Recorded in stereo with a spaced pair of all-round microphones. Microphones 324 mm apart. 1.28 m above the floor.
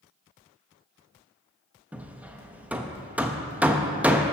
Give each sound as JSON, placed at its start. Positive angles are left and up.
{"t": 1.9, "sound": "hammering", "side_deg": -5, "distance_m": 0.6}